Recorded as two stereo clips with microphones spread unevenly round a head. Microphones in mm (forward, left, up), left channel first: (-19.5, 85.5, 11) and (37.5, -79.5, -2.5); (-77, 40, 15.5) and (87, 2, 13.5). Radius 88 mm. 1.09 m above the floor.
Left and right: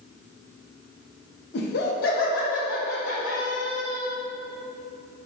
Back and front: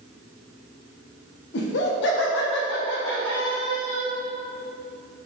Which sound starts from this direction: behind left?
Laughter, at 1.5 s.